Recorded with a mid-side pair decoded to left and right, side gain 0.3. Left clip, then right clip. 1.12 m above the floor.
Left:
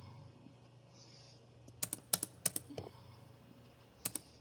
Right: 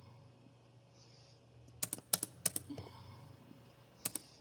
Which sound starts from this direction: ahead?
Typing on a keyboard, at 1.8 s.